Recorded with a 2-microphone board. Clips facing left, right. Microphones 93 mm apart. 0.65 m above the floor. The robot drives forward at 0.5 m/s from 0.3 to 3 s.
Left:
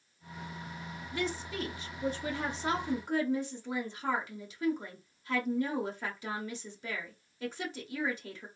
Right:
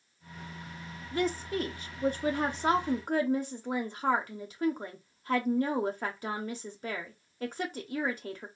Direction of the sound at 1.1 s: 45° right (ahead or behind).